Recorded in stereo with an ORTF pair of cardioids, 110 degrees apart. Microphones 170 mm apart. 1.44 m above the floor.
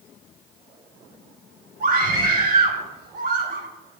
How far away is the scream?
About 5 m.